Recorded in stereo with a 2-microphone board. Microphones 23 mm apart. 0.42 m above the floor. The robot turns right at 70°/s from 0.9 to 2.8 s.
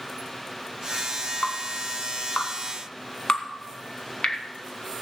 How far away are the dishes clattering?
I don't hear dishes clattering.